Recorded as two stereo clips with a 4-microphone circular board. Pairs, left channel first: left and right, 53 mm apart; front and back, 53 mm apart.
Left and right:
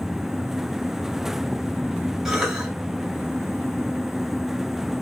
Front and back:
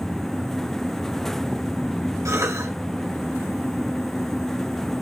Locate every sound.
2.2 s a cough: 170° right, 6.5 m